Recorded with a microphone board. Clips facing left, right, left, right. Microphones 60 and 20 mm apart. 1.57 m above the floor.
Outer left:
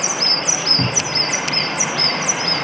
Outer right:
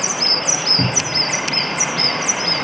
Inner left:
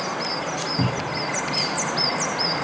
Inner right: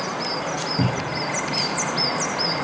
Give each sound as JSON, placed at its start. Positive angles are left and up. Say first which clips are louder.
{"t": 0.8, "sound": "a cupboard door", "louder": "outer right 1 dB, inner right 1 dB", "side_deg": -5, "distance_m": 0.7}